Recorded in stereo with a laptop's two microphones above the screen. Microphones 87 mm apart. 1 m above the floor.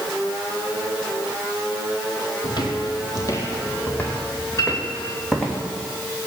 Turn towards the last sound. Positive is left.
turn(degrees=40)  # may be behind; listen again after turning